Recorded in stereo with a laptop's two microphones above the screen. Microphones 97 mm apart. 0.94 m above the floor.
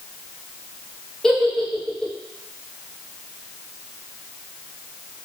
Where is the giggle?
5° left (ahead or behind), 1.1 m.